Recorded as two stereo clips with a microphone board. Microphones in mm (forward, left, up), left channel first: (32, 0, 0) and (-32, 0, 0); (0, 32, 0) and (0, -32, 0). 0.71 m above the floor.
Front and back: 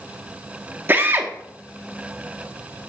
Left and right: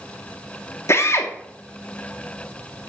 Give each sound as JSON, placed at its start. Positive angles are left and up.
{"t": 0.9, "sound": "a drill", "azimuth_deg": 125, "distance_m": 1.1}